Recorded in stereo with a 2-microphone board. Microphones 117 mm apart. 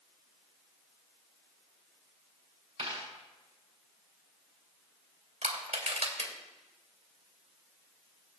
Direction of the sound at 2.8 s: 50° right (ahead or behind).